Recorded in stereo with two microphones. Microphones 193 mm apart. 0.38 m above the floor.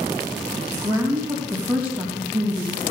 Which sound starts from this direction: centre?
A woman speaking, at 0.8 s.